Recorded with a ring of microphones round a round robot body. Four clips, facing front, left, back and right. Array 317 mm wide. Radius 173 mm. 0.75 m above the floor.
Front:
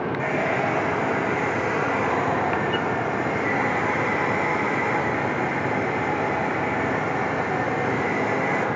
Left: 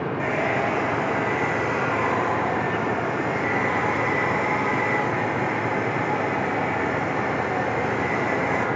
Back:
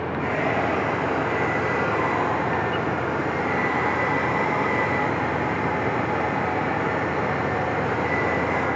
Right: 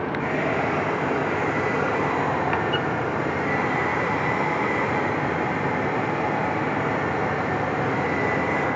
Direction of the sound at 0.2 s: 20° left.